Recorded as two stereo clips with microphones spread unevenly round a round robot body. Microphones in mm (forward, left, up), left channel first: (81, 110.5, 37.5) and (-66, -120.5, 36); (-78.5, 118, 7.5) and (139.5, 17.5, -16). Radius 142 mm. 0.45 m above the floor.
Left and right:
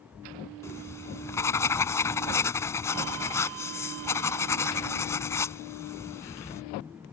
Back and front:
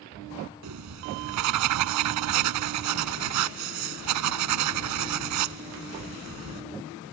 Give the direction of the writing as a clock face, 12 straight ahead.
1 o'clock.